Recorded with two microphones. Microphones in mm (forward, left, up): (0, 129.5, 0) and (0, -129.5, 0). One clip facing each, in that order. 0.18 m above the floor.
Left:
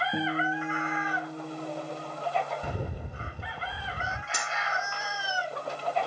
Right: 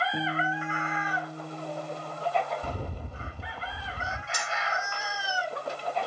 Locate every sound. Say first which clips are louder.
0.1 s a guitar: left 2 dB; 55° left (ahead or behind), 2.5 m
2.6 s a rattle: left 1 dB; 15° left (ahead or behind), 0.8 m
4.3 s cutlery clinking: even; 70° left (ahead or behind), 2.5 m